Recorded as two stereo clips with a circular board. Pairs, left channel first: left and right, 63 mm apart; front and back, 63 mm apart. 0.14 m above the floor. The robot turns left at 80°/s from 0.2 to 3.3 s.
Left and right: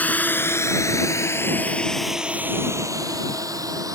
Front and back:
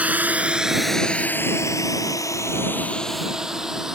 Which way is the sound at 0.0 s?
130° left.